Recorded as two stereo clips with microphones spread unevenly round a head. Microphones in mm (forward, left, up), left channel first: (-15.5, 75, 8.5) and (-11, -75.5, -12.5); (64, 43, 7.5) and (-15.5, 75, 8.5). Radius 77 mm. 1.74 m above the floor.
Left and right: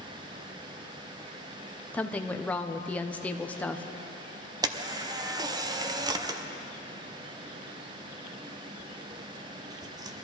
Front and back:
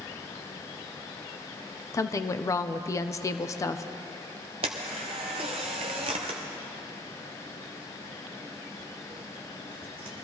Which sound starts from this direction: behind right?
A camera shutter, at 4.6 s.